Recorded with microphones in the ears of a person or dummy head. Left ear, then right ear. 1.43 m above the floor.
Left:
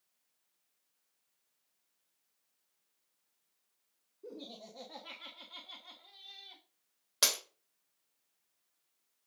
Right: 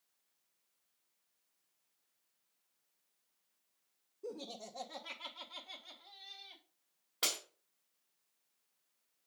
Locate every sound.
4.2 s laughter: 40° right (ahead or behind), 0.9 m; by 6.6 s 10° left (ahead or behind), 2 m
7.2 s breaking glass: 70° left (ahead or behind), 2.5 m